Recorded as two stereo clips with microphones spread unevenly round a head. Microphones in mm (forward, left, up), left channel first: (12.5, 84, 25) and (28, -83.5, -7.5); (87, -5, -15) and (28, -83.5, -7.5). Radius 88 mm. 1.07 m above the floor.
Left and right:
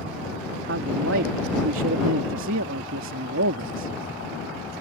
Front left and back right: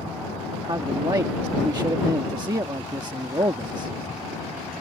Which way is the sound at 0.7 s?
75° right.